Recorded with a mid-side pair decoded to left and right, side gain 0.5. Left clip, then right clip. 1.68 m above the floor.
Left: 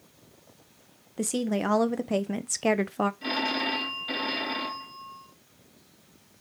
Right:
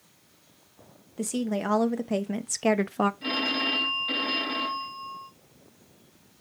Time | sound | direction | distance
1.2 | a woman speaking | 20° left | 1.5 m
3.2 | a phone ringing | 5° left | 3 m